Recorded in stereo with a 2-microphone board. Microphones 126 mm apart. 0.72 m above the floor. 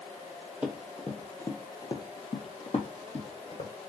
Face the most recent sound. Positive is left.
turn(degrees=60)  # may be behind; listen again after turning